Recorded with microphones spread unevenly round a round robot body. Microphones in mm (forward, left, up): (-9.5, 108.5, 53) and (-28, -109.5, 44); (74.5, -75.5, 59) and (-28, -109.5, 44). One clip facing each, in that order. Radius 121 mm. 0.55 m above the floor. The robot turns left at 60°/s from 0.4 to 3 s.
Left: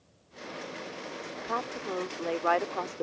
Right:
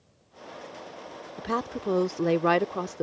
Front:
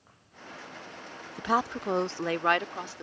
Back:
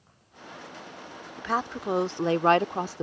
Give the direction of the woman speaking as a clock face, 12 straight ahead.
2 o'clock.